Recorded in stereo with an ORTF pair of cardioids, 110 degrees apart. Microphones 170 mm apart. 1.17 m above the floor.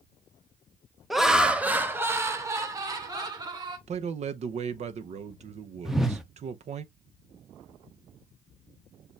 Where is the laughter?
Straight ahead, 1.2 m; by 3.8 s 25° right, 2.5 m.